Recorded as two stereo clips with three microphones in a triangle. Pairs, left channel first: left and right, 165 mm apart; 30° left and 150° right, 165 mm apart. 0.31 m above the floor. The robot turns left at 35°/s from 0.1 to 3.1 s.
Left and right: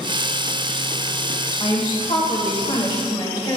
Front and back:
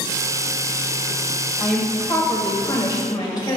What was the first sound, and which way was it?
A woman speaking, 115° left.